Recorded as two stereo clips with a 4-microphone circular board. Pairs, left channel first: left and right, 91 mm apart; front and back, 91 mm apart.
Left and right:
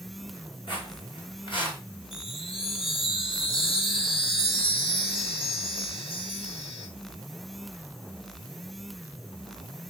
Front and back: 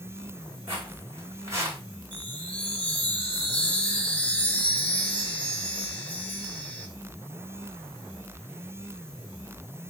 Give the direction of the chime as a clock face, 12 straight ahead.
10 o'clock.